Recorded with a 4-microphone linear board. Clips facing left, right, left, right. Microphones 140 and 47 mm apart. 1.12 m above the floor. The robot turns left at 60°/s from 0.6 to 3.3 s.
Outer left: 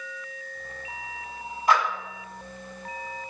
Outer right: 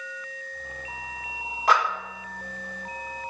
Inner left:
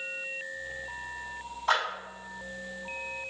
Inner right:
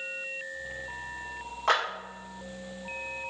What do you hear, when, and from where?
1.7 s a clap: 85° right, 1.8 m